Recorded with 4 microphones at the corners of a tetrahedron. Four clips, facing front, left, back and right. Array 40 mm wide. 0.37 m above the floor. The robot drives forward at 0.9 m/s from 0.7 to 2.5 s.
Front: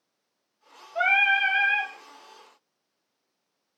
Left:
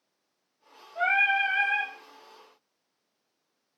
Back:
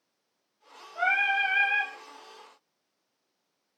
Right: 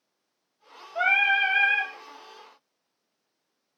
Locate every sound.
0.9 s singing: 45° right, 2.5 m; by 1.9 s 65° right, 2.0 m